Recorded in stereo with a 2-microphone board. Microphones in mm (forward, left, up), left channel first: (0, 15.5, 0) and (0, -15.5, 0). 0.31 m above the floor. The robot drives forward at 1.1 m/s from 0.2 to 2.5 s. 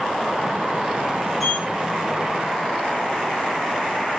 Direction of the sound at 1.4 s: 5° left (ahead or behind).